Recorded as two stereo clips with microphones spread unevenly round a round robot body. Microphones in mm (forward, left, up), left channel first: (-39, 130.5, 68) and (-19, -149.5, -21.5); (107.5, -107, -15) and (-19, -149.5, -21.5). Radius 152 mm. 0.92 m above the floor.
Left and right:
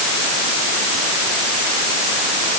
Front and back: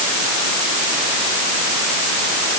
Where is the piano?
No piano in this recording.